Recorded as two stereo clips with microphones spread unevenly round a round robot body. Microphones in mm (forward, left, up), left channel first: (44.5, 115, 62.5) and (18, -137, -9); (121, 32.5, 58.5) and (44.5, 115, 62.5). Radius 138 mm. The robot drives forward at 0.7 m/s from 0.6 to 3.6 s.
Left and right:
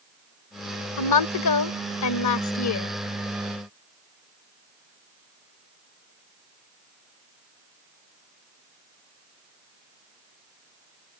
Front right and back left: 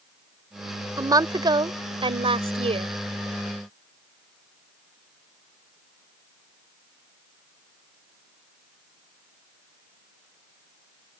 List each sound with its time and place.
1.0 s a woman speaking: 80° left; by 2.9 s 120° left